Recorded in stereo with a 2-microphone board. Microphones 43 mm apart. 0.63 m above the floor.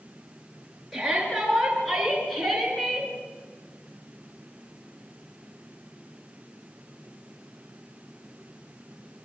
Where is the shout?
5° right (ahead or behind), 9.5 m; by 3.1 s 10° left (ahead or behind), 7 m.